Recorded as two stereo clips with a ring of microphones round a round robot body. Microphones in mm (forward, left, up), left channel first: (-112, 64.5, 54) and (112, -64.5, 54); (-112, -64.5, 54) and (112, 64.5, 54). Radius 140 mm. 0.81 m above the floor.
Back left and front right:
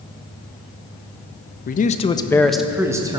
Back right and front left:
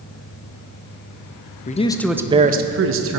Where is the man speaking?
175° left, 0.5 m; by 3.2 s 45° left, 0.8 m.